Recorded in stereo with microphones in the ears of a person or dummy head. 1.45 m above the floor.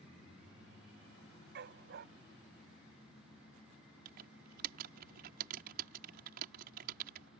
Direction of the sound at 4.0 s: 55° right (ahead or behind).